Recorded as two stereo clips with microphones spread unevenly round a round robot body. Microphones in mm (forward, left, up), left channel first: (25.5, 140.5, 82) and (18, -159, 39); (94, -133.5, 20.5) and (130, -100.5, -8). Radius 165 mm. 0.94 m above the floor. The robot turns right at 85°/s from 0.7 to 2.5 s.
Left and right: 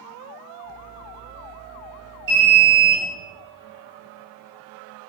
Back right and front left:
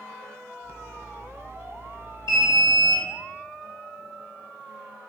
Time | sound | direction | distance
2.3 | an alarm | 110° right | 1.5 m